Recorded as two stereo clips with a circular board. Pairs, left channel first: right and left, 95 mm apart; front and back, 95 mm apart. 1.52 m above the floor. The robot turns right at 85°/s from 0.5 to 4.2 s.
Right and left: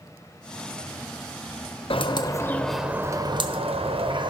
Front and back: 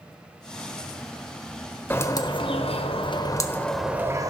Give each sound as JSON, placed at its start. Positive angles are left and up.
{"t": 1.9, "sound": "a bird", "azimuth_deg": -70, "distance_m": 1.0}